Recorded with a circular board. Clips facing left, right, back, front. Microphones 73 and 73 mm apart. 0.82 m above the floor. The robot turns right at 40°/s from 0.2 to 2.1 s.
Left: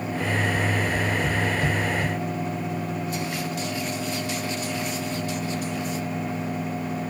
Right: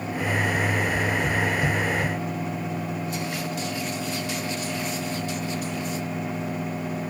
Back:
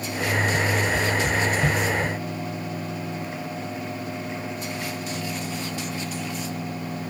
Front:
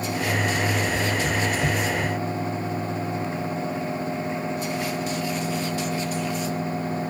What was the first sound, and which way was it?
Only background noise.